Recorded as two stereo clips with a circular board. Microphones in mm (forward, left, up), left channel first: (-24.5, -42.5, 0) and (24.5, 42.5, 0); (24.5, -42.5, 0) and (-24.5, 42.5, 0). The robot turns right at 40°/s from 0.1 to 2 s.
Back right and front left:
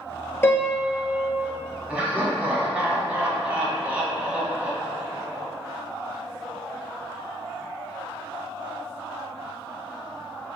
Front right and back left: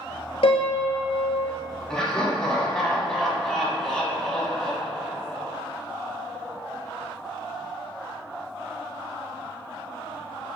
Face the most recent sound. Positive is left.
turn(degrees=15)